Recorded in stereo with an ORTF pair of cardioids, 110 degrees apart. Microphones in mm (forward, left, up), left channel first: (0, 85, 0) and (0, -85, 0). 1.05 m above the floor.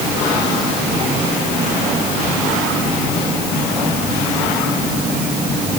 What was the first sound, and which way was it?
Only background noise.